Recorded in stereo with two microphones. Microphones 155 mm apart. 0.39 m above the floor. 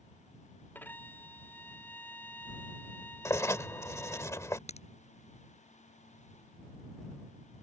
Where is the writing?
20° left (ahead or behind).